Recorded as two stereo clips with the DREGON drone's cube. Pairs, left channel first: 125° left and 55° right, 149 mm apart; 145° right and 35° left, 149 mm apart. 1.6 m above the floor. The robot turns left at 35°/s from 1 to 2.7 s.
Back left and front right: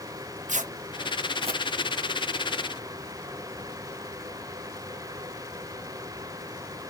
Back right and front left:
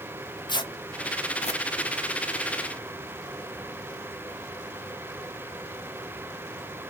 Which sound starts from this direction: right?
Tearing paper, at 0.5 s.